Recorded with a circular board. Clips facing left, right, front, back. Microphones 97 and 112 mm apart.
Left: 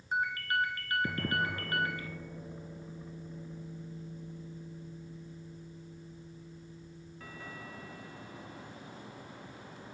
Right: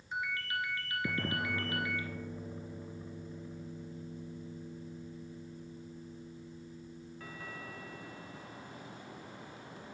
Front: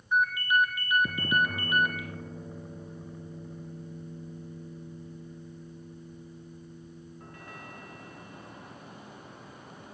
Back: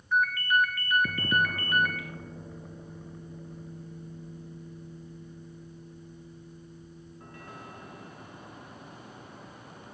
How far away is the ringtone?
About 1.4 m.